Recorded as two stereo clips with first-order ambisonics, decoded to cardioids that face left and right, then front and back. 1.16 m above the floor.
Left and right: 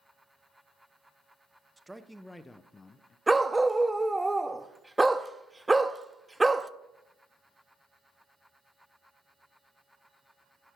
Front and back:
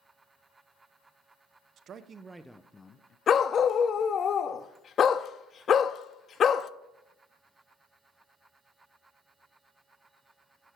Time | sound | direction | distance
1.8 | a man speaking | 170° right | 0.7 m
3.3 | a dog barking | 15° right | 0.5 m